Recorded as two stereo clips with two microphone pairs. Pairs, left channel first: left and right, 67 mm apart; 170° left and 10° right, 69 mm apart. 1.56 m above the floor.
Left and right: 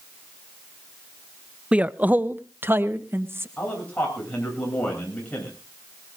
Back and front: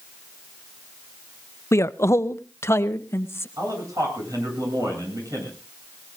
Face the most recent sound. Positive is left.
turn(degrees=20)